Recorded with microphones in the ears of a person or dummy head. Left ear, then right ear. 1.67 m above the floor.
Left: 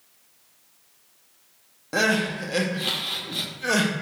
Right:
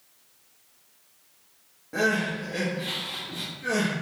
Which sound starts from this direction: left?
Crying, at 1.9 s.